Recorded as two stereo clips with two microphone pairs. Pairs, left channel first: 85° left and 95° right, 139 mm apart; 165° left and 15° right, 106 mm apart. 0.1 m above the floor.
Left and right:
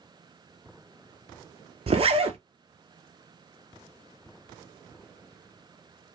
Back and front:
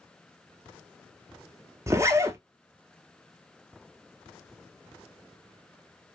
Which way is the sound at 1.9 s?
70° right.